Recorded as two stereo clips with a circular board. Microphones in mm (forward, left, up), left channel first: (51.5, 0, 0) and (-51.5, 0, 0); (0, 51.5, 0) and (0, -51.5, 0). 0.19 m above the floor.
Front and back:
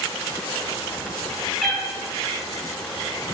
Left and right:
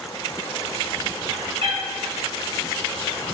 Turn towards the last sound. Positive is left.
turn(degrees=-90)